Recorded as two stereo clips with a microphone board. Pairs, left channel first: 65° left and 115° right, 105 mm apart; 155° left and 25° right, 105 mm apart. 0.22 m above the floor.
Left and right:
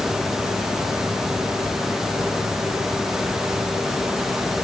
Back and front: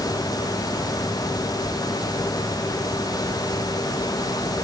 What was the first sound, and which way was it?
Only background noise.